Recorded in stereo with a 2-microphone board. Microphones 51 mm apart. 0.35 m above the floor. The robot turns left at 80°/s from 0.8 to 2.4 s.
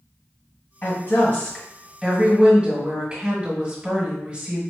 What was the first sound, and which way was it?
A woman speaking, 95° left.